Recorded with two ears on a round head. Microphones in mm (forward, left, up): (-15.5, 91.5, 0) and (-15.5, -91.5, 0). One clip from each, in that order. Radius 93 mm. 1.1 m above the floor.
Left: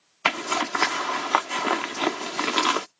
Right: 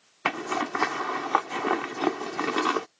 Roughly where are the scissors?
No scissors in this recording.